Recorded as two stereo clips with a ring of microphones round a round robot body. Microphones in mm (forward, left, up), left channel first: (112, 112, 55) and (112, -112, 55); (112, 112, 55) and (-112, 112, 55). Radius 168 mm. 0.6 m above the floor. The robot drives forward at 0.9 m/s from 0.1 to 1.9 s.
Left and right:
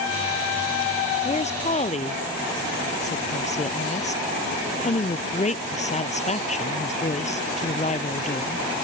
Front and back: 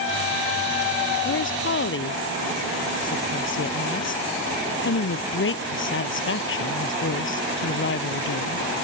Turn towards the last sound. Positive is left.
turn(degrees=30)